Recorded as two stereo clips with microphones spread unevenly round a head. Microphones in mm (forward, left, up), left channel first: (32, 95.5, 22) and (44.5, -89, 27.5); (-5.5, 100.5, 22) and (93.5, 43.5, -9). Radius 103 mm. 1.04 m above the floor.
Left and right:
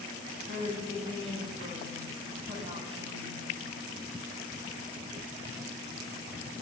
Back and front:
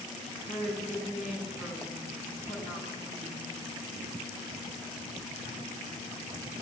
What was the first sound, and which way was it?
A woman speaking, 155° right.